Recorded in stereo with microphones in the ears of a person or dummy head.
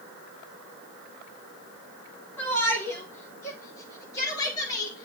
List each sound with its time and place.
2.4 s a shout: 15° left (ahead or behind), 4.5 m; by 5.0 s 25° left (ahead or behind), 6.5 m